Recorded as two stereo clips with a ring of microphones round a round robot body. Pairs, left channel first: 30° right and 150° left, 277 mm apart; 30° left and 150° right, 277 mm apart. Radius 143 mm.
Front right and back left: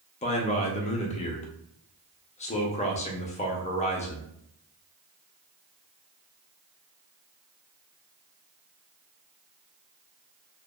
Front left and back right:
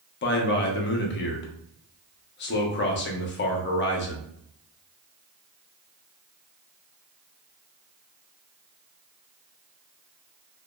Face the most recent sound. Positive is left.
turn(degrees=20)